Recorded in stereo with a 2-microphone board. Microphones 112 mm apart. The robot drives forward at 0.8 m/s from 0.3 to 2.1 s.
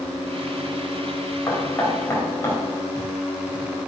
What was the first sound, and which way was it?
Knocking, 25° left (ahead or behind).